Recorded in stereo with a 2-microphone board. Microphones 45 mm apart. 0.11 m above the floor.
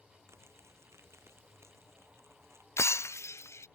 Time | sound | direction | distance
0.3 | crumpling | 80° right | ?
2.8 | breaking glass | 85° left | ?